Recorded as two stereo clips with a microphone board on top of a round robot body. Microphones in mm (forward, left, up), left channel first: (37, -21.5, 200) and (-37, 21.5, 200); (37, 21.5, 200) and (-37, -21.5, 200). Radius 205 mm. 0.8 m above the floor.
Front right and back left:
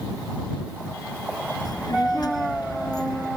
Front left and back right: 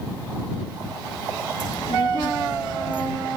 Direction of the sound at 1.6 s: 10° left.